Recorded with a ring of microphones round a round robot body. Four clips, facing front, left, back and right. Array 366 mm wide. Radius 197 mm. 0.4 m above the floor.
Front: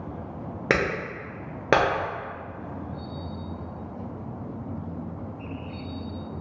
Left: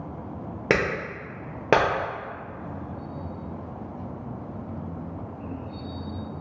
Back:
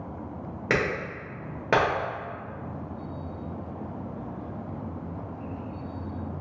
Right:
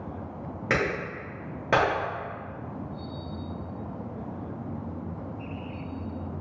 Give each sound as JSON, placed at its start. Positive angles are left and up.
{"t": 0.7, "sound": "a clap", "azimuth_deg": 55, "distance_m": 1.3}